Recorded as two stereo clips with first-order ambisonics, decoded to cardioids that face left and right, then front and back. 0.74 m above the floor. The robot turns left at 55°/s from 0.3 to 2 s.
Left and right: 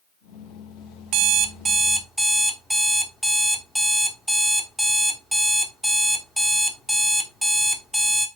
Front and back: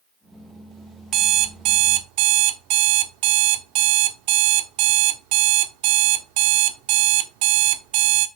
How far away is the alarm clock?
About 1.0 m.